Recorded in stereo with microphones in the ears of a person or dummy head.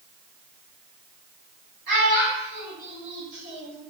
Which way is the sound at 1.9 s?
60° right (ahead or behind).